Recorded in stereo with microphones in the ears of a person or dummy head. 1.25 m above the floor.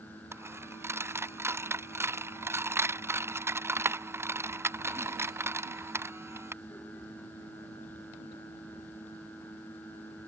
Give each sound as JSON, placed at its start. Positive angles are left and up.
{"t": 0.3, "sound": "a dropped coin", "side_deg": -10}